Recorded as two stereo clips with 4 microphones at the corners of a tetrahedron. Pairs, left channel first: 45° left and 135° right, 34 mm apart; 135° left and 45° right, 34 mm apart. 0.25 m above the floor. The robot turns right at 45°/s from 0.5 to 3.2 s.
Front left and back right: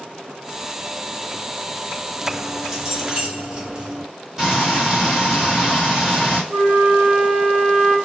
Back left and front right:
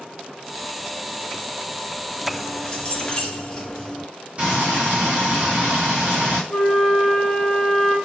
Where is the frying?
65° right, 2 m.